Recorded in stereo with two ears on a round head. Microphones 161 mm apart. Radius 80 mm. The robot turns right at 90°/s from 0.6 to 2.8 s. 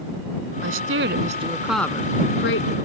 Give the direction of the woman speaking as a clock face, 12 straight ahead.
3 o'clock.